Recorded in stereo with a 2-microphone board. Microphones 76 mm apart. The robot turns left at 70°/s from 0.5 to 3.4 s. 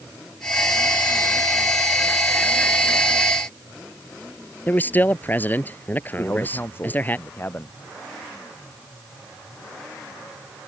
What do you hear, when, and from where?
4.7 s a man speaking: 25° left (ahead or behind)
6.2 s a man speaking: 30° left (ahead or behind)